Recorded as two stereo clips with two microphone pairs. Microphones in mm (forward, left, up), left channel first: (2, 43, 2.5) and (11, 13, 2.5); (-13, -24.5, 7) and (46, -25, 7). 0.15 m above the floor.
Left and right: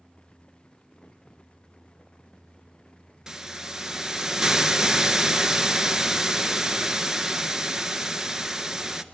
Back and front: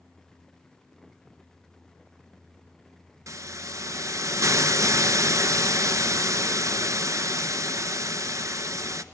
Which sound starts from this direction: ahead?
A hiss, at 3.3 s.